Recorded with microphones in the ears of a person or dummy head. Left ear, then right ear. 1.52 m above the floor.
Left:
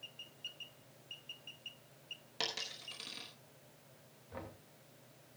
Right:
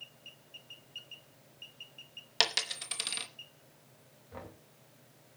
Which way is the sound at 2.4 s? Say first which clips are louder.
Right 10 dB; 35° right (ahead or behind).